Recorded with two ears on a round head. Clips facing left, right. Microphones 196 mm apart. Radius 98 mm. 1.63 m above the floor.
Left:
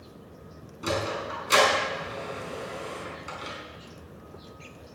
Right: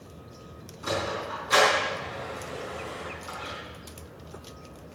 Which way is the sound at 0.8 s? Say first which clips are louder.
Left 1 dB; 40° left (ahead or behind).